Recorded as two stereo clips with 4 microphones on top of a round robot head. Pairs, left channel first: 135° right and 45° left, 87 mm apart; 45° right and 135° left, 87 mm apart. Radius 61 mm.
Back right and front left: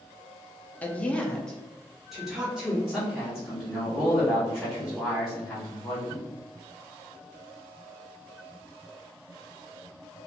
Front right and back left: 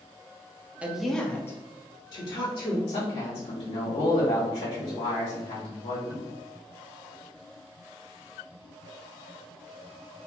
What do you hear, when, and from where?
0.8 s a woman speaking: 175° right, 0.6 m; by 2.8 s 40° right, 1.1 m
2.9 s a man speaking: 50° right, 0.9 m